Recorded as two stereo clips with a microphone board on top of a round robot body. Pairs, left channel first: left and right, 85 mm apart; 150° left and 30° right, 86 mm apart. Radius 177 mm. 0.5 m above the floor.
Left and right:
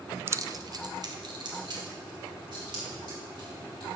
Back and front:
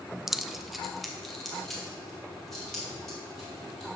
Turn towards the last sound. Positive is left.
turn(degrees=-120)